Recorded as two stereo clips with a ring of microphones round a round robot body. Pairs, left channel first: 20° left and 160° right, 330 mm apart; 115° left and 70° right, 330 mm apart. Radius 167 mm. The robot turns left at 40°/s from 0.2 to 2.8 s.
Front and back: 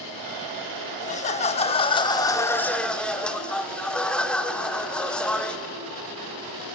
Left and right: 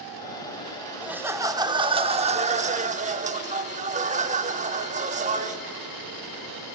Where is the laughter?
10° left, 0.8 m; by 5.6 s 60° right, 0.8 m.